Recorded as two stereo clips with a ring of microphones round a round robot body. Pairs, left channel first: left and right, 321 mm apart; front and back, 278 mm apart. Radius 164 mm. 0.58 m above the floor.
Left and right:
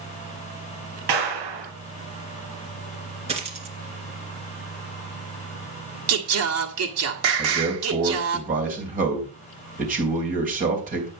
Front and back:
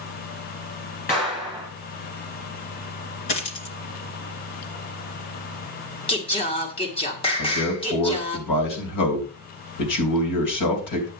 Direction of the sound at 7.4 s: 25° right.